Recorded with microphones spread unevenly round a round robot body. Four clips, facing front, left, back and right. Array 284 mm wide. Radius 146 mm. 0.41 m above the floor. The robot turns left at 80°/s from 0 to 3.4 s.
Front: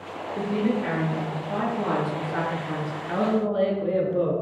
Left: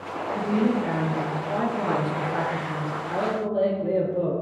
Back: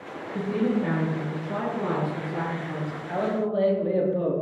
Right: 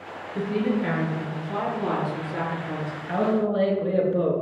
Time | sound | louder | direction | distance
0.3 | a woman speaking | left 1 dB, even | 170° right | 7 m
3.1 | a man speaking | right 4 dB, front 2 dB | 30° right | 5.5 m